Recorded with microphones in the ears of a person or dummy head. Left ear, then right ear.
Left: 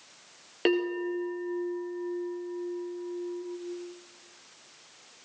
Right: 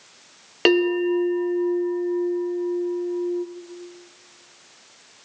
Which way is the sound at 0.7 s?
25° right (ahead or behind).